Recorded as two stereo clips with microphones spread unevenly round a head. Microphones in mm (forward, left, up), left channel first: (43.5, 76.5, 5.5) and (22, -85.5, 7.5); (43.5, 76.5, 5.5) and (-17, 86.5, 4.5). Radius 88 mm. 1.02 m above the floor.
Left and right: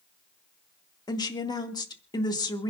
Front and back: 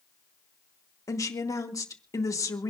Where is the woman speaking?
15° left, 2 m.